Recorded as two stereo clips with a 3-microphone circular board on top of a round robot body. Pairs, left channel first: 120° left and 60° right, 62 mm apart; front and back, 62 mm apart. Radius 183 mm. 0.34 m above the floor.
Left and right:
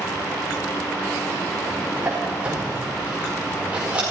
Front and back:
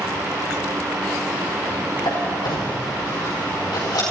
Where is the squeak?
15° left, 5 m.